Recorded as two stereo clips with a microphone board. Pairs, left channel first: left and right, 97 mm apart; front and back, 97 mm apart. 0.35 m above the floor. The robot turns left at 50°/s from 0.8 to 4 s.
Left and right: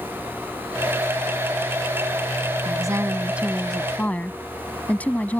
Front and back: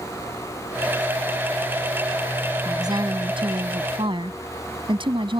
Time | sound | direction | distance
2.6 | a woman speaking | 130° right | ?